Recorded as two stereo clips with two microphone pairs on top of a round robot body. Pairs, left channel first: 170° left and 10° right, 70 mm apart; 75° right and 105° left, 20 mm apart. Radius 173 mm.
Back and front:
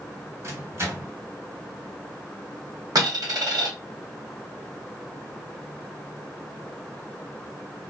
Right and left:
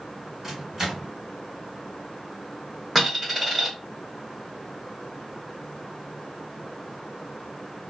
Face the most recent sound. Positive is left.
turn(degrees=20)